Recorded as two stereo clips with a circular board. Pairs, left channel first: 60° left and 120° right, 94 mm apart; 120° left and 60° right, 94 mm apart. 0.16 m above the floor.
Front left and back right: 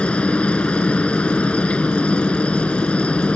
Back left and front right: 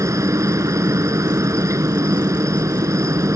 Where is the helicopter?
15° right.